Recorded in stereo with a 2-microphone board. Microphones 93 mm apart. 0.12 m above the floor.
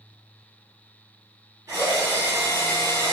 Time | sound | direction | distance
1.7 | a drill | 30° right (ahead or behind) | 1.2 m